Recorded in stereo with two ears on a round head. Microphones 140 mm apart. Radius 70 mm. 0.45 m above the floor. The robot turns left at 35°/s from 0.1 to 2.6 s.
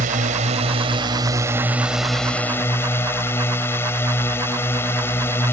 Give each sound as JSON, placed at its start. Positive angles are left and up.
{"t": 0.0, "sound": "a drone", "azimuth_deg": -110}